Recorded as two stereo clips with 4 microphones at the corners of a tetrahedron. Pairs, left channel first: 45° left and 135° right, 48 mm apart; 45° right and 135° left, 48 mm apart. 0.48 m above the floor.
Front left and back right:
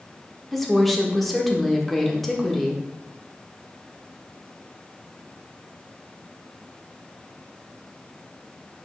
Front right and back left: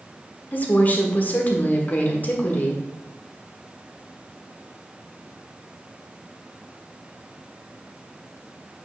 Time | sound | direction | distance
0.5 | a woman speaking | 35° right | 1.3 m